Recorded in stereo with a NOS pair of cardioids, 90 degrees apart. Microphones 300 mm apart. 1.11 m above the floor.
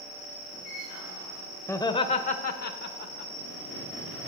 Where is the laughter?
5° left, 0.7 m; by 3.3 s 75° left, 1.1 m.